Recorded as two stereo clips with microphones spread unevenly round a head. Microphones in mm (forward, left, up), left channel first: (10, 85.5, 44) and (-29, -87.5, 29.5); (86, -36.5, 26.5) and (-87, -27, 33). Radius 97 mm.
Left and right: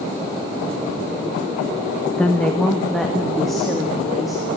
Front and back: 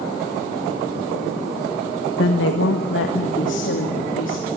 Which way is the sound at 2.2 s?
5° right.